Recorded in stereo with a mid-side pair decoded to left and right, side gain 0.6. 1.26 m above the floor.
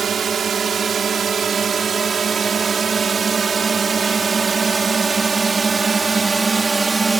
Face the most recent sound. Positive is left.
turn(degrees=-15)